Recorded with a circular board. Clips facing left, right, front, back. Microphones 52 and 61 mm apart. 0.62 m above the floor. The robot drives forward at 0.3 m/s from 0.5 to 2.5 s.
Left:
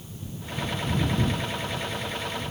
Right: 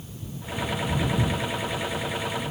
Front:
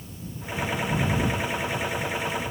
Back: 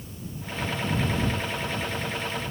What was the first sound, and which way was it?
Only background noise.